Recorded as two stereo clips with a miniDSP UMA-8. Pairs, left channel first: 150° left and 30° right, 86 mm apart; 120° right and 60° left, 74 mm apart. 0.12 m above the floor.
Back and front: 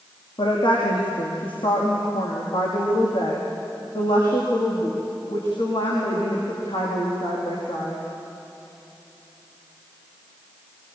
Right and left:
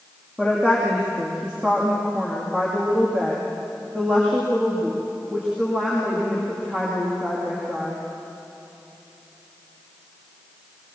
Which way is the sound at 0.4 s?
140° left.